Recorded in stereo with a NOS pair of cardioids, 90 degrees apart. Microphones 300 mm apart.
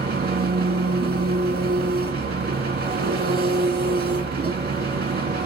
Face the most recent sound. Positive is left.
turn(degrees=-35)